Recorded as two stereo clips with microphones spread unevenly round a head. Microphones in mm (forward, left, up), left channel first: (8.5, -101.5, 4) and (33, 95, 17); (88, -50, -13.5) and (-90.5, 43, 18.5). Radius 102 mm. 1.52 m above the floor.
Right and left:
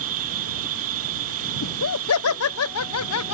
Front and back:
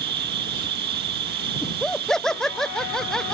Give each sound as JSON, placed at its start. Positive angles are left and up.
{"t": 0.0, "sound": "an insect", "azimuth_deg": 105}
{"t": 1.6, "sound": "laughter", "azimuth_deg": -115}